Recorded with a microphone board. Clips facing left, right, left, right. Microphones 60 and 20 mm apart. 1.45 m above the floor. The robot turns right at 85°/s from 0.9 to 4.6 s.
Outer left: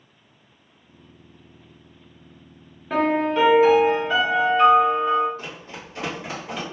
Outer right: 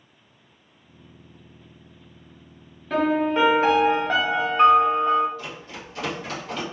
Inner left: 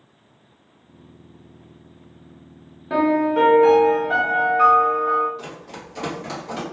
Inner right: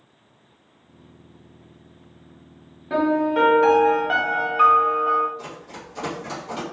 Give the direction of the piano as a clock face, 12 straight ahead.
7 o'clock.